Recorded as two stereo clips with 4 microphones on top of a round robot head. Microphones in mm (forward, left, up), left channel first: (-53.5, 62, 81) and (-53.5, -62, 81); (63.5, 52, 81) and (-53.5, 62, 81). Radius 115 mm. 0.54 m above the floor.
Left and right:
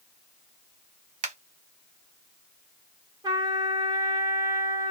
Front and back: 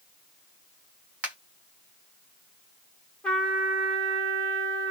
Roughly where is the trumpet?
Right.